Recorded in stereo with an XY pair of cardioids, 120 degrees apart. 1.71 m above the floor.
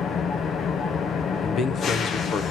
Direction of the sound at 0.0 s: 50° left.